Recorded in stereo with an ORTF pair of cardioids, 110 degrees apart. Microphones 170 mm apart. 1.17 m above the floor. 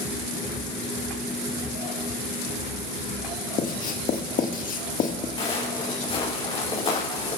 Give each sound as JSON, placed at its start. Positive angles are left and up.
{"t": 3.6, "sound": "writing", "azimuth_deg": 55, "distance_m": 1.6}
{"t": 5.4, "sound": "footsteps", "azimuth_deg": 35, "distance_m": 6.0}